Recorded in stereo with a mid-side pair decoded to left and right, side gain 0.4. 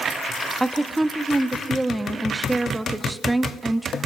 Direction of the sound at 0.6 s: 15° right.